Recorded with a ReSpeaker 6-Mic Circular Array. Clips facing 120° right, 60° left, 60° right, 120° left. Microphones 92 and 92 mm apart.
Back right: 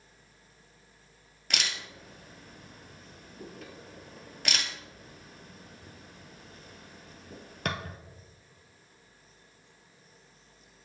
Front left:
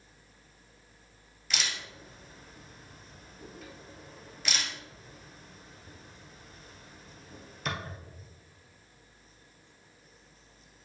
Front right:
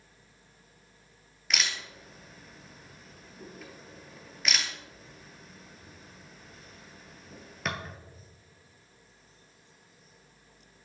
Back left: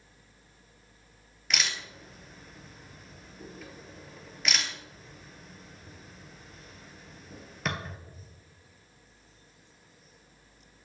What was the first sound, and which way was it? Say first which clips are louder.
A camera shutter: back right 1 dB, even; 150° right.